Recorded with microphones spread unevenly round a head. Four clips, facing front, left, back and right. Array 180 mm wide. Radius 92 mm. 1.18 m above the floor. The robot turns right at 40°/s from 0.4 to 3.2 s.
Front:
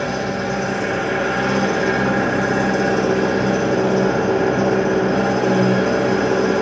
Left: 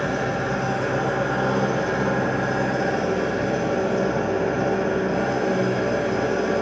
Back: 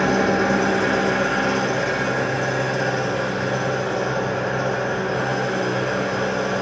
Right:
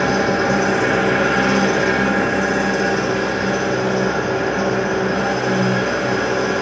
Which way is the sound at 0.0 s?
120° right.